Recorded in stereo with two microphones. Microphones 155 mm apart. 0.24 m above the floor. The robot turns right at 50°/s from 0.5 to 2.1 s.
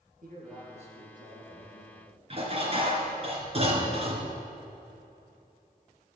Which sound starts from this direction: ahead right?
A man speaking, at 0.2 s.